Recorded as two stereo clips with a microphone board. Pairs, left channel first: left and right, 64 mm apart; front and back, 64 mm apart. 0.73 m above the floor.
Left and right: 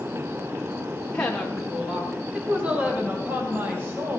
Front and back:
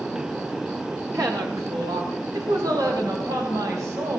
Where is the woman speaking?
160° left, 1.8 m; by 4.2 s 145° right, 4.5 m.